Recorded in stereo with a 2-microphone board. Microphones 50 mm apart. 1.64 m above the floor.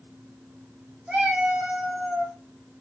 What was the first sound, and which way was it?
A cat meowing, 25° right (ahead or behind).